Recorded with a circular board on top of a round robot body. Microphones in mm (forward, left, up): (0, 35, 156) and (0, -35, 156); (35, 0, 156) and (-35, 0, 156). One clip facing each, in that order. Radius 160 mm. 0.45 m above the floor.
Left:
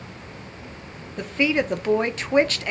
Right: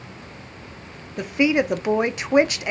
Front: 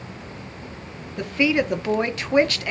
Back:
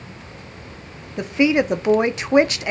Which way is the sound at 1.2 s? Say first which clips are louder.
Right 3 dB, back 3 dB; 145° right.